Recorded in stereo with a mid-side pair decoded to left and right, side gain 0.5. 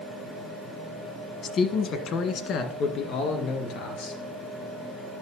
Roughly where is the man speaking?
Ahead left.